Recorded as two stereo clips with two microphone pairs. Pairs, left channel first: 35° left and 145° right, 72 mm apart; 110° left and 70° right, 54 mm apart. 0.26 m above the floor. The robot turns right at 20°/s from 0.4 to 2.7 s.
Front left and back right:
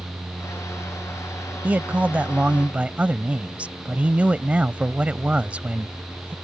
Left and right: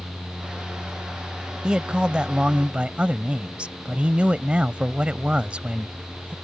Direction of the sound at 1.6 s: 120° right.